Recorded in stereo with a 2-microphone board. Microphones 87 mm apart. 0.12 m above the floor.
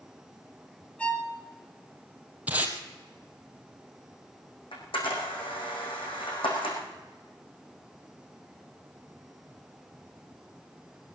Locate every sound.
1.0 s a violin: 15° left (ahead or behind), 1.7 m
2.5 s tape being pulled: 15° right (ahead or behind), 1.9 m
4.7 s a camera shutter: 75° left (ahead or behind), 5 m